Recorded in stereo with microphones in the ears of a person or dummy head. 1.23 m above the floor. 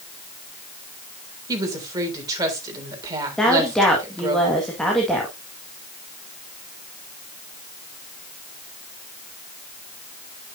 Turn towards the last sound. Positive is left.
turn(degrees=0)  # may be behind; listen again after turning